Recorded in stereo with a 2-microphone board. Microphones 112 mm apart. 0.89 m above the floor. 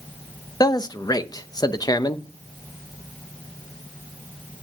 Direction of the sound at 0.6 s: 35° left (ahead or behind).